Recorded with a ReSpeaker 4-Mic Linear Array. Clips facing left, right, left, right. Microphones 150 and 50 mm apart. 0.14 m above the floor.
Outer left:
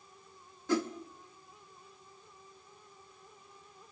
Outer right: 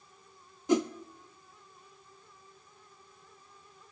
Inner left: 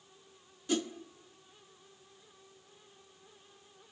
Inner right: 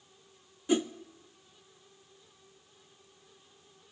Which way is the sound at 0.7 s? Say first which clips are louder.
Outer right 4 dB, inner right 5 dB; 20° right (ahead or behind).